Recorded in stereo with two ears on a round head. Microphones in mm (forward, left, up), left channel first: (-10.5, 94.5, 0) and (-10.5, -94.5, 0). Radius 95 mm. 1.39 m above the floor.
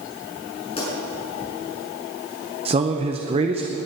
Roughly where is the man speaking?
Right.